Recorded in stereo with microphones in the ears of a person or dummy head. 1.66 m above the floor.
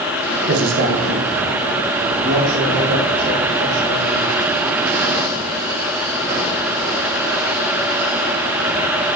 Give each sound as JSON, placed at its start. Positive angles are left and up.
{"t": 0.5, "sound": "a man speaking", "side_deg": -55, "distance_m": 1.0}